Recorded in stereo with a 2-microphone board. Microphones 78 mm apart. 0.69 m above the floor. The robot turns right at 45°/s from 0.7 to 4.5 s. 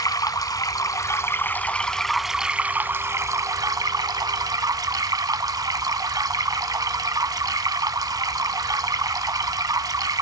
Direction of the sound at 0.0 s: 115° left.